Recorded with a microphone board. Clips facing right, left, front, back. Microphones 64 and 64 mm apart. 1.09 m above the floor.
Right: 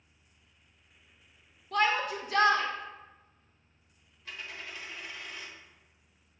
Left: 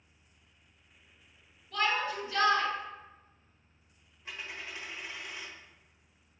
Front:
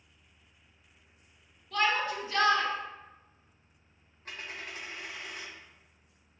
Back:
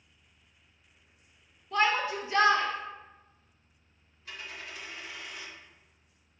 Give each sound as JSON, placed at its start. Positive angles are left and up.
{"t": 1.7, "sound": "a shout", "azimuth_deg": -115, "distance_m": 1.0}
{"t": 4.2, "sound": "a dropped coin", "azimuth_deg": 25, "distance_m": 1.2}